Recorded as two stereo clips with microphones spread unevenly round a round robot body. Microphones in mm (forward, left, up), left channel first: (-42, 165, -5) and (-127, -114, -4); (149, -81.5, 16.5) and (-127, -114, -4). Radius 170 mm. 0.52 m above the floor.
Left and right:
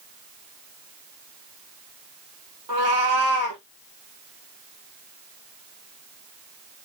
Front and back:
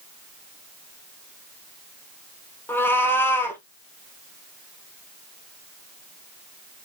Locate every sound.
2.7 s a cat meowing: 75° right, 1.7 m